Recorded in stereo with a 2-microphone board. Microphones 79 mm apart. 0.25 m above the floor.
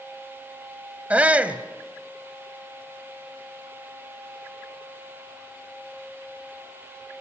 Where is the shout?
20° right (ahead or behind), 1.0 m.